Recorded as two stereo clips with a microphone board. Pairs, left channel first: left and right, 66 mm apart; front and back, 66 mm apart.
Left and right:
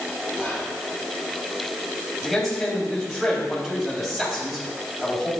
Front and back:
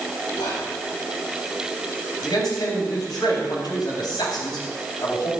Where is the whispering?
15° right, 5 m.